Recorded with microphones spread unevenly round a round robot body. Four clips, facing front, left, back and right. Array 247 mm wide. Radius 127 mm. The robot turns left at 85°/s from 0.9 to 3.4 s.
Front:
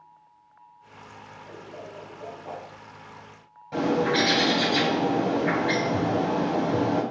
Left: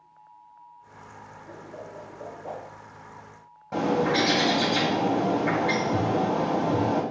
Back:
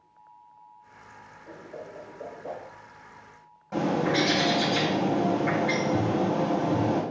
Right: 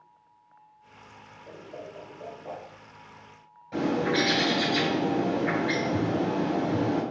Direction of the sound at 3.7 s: 80° left.